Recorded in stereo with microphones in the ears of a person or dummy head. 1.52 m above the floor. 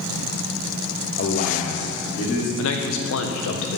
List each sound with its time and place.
1.2 s a man speaking: 40° left (ahead or behind), 0.6 m
2.6 s a man speaking: 75° left (ahead or behind), 0.9 m